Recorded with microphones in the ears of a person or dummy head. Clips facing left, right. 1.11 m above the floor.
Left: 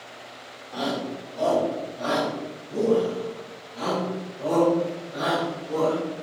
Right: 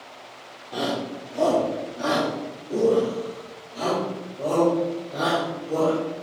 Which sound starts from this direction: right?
A shout, at 0.7 s.